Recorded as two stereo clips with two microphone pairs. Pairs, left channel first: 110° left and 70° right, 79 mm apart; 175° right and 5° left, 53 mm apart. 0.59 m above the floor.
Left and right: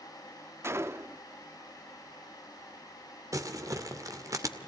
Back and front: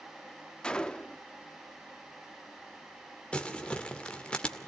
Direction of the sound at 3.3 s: 105° right.